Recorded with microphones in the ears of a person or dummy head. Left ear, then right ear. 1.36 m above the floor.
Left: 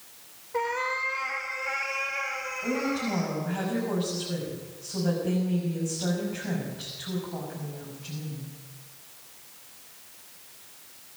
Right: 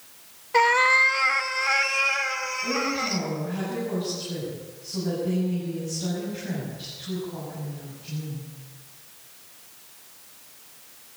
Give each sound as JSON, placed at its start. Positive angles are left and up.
{"t": 0.5, "sound": "a cat meowing", "side_deg": -25, "distance_m": 0.8}
{"t": 2.6, "sound": "a woman speaking", "side_deg": 30, "distance_m": 7.0}